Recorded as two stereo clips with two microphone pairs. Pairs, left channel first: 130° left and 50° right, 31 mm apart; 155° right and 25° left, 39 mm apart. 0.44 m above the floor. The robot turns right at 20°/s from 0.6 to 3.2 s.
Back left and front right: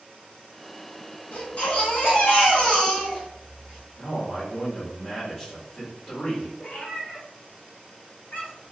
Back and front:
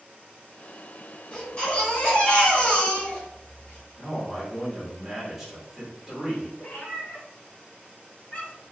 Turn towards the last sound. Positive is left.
turn(degrees=150)